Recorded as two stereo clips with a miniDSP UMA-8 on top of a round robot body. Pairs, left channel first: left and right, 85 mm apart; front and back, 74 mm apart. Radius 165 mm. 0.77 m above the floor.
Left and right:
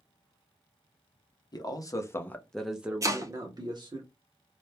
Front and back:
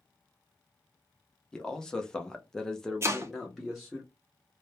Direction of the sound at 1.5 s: 75° left.